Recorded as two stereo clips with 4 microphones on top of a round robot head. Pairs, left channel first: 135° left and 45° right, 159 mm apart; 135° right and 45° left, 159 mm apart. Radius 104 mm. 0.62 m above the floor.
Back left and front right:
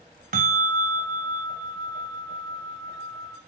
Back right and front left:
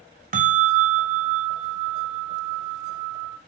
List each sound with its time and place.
0.3 s a bell: straight ahead, 0.7 m